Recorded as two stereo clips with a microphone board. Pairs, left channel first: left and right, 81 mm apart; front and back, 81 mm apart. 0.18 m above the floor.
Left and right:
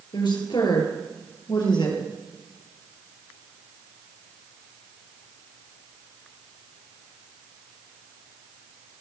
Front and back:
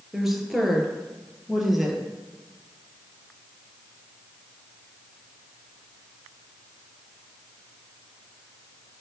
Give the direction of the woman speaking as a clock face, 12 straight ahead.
9 o'clock.